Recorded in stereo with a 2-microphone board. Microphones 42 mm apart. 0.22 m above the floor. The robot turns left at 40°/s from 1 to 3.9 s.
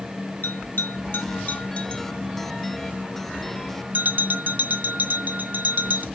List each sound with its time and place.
0.4 s a bell: 65° left (ahead or behind), 1.3 m; by 6.0 s 50° right (ahead or behind), 1.3 m